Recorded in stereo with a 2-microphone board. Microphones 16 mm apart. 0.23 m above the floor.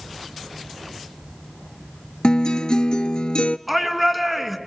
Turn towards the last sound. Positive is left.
turn(degrees=-5)  # may be behind; listen again after turning